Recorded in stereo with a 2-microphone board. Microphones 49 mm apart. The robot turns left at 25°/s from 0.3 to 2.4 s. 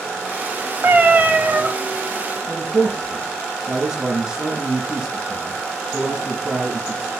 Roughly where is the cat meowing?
Right.